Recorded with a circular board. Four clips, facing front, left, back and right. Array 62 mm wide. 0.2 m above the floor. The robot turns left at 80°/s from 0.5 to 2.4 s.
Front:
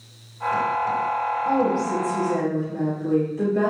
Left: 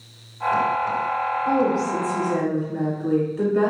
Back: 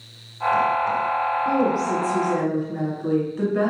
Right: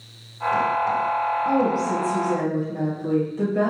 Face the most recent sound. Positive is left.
turn(degrees=160)